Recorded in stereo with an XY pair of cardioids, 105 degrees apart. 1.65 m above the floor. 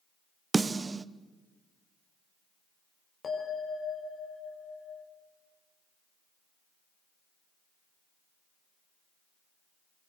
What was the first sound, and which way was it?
A snare drum, 25° right.